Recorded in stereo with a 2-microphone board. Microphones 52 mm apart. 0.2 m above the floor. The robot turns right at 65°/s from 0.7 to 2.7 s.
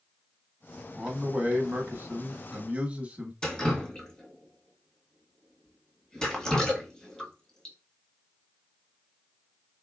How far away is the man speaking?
About 1.1 m.